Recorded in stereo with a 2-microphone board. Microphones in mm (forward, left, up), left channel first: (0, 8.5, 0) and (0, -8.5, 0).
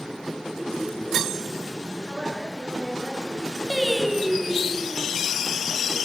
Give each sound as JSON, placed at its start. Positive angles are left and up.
{"t": 2.1, "sound": "a woman speaking", "side_deg": 20, "distance_m": 5.5}
{"t": 3.7, "sound": "singing", "side_deg": -15, "distance_m": 1.5}